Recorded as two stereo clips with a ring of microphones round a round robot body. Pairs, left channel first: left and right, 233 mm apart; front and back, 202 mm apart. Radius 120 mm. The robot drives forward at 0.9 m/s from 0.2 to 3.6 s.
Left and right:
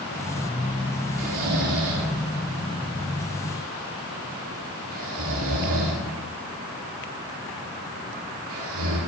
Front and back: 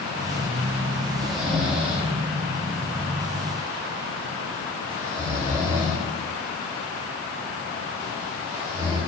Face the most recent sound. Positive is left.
turn(degrees=-105)